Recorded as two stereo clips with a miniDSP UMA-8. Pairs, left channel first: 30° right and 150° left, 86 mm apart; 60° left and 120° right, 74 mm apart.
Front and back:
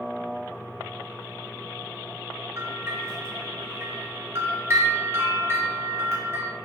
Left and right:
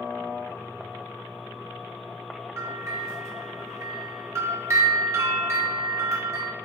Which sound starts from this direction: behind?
A bell, at 2.6 s.